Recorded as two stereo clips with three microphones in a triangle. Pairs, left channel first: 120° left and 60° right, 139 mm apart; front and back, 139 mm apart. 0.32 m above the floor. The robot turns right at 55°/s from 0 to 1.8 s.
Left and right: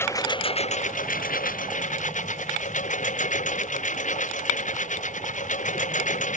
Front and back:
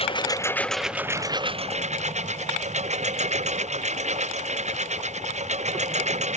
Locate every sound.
0.0 s a lawn mower: 45° left; by 6.4 s 145° left